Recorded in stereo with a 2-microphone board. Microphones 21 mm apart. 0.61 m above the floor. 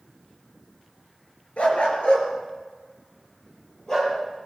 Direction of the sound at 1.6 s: 75° left (ahead or behind).